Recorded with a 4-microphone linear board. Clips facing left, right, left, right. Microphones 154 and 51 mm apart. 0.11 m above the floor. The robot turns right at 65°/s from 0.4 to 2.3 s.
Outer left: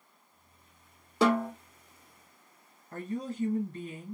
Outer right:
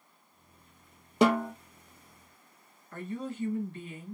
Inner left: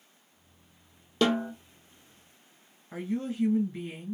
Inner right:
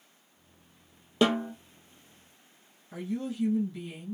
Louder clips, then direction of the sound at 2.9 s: Outer left 1 dB, inner left 2 dB; 40° left (ahead or behind).